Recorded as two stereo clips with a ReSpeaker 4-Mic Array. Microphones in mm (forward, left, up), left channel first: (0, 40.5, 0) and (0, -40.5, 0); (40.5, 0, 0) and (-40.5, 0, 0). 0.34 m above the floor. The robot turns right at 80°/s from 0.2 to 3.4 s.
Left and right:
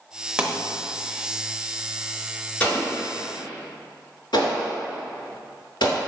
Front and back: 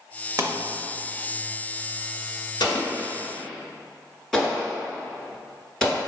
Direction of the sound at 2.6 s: 20° left.